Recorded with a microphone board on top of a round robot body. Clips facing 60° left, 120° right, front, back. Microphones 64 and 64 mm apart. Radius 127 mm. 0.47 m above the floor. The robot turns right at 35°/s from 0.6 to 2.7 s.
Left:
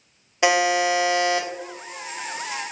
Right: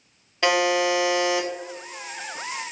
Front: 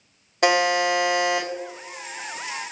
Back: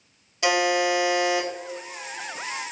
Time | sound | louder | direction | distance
0.4 | a buzzer | left 1 dB, front 2 dB | 15° right | 0.9 m